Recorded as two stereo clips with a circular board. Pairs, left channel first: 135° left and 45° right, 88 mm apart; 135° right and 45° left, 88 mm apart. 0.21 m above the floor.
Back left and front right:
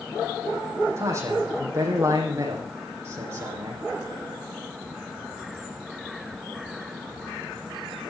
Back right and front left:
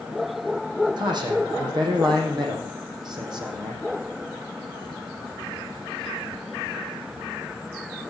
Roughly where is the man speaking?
Ahead.